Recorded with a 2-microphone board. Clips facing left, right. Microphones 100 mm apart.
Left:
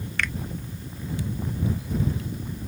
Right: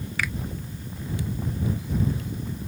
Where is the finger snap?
5° right (ahead or behind).